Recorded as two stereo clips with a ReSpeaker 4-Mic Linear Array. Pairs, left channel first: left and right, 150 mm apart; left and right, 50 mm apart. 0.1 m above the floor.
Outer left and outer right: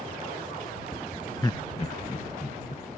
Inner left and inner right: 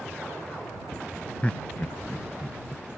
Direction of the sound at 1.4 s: 25° left (ahead or behind).